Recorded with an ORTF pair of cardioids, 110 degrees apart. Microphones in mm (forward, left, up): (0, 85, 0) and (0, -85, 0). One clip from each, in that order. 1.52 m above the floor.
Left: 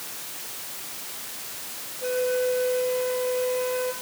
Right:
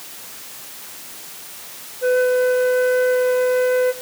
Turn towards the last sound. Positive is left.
turn(degrees=-45)